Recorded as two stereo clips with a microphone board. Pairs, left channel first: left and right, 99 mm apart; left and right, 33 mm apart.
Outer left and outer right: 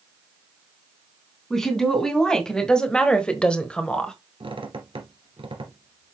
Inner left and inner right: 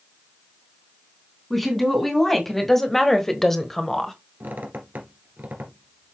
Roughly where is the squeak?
Right.